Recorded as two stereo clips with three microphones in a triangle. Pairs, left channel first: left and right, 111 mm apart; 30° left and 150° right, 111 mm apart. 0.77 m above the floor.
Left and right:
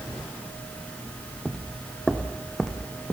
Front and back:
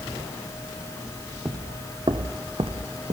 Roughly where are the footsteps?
Behind.